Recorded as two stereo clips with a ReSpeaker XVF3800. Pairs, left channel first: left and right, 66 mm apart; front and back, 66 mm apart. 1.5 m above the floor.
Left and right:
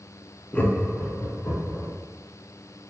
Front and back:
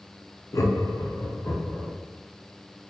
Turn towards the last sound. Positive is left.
turn(degrees=45)